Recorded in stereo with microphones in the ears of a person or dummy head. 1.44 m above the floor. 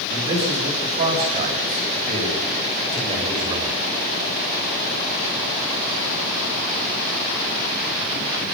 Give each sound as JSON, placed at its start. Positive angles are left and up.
{"t": 0.1, "sound": "a man speaking", "side_deg": -55, "distance_m": 8.5}